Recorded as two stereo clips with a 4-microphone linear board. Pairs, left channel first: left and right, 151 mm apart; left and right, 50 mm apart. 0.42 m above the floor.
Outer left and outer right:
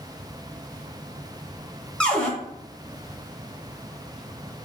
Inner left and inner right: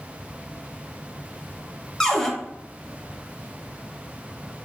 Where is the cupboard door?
5° left (ahead or behind), 0.6 m.